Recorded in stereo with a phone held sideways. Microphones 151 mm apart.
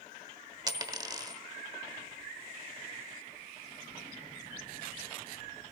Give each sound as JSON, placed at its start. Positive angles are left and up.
{"t": 0.7, "sound": "a dropped coin", "side_deg": -25, "distance_m": 1.0}